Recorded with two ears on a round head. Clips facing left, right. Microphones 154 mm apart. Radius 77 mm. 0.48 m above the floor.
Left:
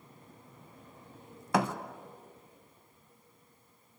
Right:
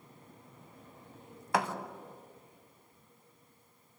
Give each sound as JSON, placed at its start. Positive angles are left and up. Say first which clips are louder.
{"t": 1.5, "sound": "a thud", "louder": "left 3 dB", "side_deg": 85, "distance_m": 1.3}